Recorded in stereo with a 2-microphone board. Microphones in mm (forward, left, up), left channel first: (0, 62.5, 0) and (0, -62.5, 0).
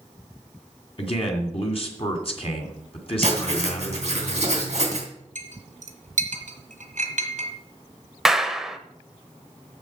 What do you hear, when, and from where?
1.0 s a man speaking: 50° left (ahead or behind), 2.5 m
3.2 s writing: 55° right (ahead or behind), 3 m
5.3 s a clink: 70° right (ahead or behind), 1.7 m
8.2 s a clap: 5° right (ahead or behind), 0.8 m